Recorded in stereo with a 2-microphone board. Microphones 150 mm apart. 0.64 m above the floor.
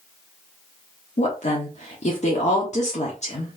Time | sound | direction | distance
1.2 | a woman speaking | 50° left (ahead or behind) | 1.1 m